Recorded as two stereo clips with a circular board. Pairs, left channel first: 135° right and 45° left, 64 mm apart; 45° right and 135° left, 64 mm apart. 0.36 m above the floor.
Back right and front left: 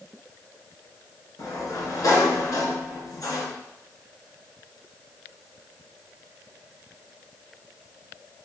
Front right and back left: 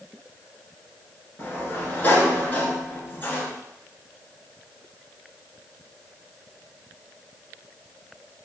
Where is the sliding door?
105° right, 1.1 m.